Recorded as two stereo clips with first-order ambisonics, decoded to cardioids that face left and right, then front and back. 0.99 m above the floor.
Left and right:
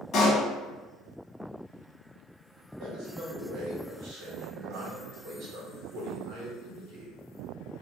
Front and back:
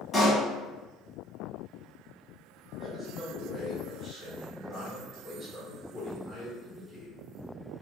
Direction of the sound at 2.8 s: 90° right.